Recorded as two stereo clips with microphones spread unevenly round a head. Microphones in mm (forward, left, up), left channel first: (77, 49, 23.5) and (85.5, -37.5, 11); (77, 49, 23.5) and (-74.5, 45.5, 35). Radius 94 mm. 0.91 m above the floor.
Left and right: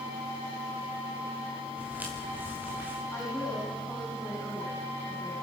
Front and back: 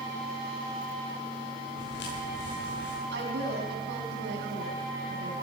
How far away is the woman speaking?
About 9 m.